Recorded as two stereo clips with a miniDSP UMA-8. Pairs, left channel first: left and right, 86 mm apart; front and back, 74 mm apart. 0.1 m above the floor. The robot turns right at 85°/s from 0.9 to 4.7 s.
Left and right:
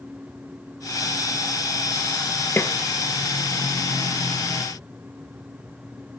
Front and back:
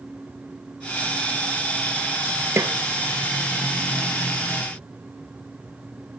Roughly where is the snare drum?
Behind left.